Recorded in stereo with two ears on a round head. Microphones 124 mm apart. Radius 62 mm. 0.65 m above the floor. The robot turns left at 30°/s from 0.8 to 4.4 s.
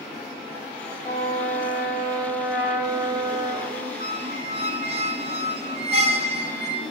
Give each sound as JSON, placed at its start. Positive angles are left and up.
{"t": 1.0, "sound": "a trumpet", "azimuth_deg": 40, "distance_m": 3.5}
{"t": 4.0, "sound": "a squeak", "side_deg": -55, "distance_m": 1.2}